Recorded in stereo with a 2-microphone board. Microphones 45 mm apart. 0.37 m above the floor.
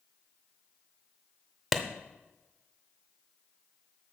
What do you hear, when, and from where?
1.7 s a clap: centre (ahead or behind), 0.7 m